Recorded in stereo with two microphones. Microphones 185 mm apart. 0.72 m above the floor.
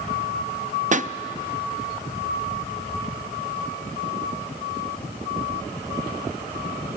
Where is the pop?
45° right (ahead or behind), 0.5 m.